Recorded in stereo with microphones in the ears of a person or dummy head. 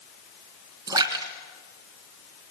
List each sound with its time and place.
0.9 s a splash: 20° right (ahead or behind), 3 m